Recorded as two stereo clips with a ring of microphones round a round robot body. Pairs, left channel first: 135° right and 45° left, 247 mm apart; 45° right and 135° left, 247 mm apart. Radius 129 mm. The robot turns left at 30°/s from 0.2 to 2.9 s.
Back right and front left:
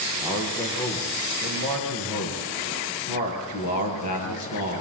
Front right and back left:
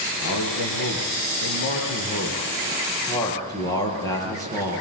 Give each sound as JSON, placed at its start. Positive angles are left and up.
{"t": 0.2, "sound": "a man speaking", "azimuth_deg": -40, "distance_m": 6.5}